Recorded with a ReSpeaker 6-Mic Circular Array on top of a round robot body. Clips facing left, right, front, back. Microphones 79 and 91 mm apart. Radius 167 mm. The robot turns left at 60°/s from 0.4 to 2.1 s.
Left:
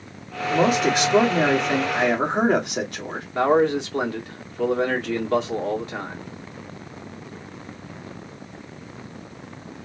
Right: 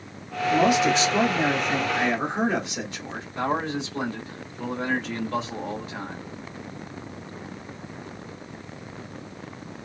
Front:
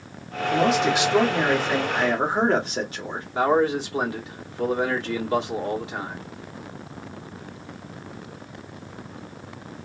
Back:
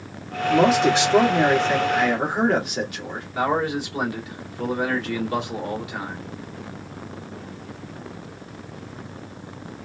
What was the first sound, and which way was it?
A man speaking, 150° left.